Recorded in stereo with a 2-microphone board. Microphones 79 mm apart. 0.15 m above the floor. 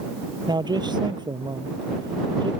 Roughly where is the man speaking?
Right.